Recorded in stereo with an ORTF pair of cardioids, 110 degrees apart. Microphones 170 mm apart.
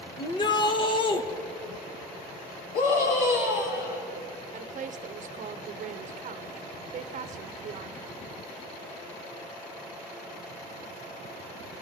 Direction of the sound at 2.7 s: 70° left.